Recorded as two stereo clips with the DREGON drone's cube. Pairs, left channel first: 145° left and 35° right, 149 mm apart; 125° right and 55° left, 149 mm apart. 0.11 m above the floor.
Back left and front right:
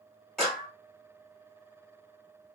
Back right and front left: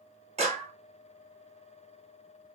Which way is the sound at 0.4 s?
55° left.